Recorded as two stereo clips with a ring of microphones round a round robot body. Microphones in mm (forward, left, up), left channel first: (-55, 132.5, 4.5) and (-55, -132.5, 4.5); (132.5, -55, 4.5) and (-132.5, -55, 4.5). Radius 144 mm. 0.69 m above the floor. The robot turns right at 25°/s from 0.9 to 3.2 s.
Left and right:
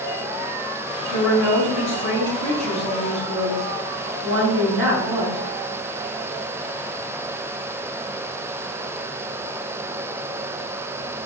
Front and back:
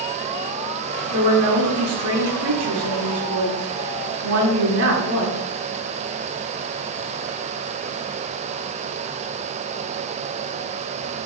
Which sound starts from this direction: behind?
A woman speaking, at 1.1 s.